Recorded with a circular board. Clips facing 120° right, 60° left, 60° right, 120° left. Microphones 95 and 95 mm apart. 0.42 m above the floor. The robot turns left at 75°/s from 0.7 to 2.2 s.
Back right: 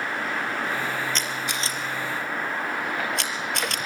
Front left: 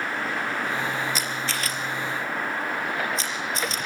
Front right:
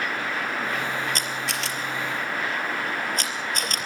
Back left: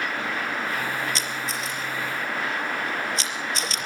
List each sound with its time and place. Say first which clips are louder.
1.1 s a camera shutter: even, front right 1 dB; 20° right, 4 m; by 3.8 s 100° right, 4 m